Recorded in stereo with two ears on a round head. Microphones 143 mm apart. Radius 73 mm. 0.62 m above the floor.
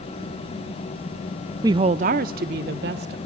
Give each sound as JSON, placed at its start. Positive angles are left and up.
{"t": 1.6, "sound": "a woman speaking", "side_deg": -20, "distance_m": 0.5}